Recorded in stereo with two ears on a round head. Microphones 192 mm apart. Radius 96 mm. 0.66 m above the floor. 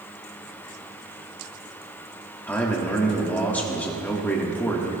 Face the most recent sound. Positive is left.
turn(degrees=10)  # may be behind; listen again after turning